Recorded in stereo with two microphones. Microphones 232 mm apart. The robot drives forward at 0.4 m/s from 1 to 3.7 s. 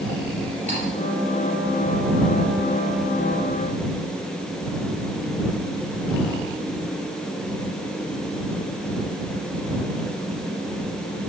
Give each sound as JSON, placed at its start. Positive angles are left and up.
{"t": 0.7, "sound": "cutlery clinking", "side_deg": -30, "distance_m": 6.5}